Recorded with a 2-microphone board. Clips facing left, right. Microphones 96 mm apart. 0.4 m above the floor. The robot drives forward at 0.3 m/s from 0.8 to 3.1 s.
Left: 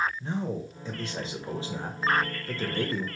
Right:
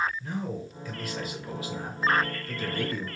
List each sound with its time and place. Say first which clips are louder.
0.2 s a man speaking: left 2 dB; 25° left (ahead or behind), 1.1 m; by 3.1 s 30° left (ahead or behind), 1.0 m